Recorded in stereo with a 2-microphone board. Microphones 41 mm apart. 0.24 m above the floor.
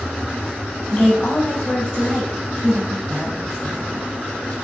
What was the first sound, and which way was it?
A woman speaking, 10° left (ahead or behind).